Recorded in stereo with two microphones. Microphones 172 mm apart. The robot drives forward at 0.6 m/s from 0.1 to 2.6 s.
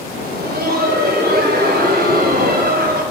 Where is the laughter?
70° right (ahead or behind), 3.5 m; by 3.0 s 80° right, 3 m.